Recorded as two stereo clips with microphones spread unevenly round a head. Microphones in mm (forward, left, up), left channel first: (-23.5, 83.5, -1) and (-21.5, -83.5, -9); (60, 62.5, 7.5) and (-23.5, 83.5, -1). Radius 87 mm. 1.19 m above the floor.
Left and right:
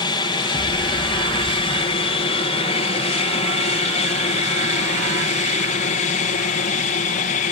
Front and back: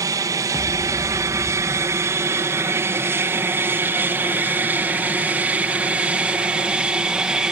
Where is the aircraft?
145° left; by 7.5 s 90° left.